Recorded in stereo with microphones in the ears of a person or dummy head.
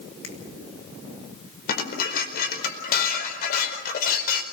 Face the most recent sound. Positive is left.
turn(degrees=55)  # may be behind; listen again after turning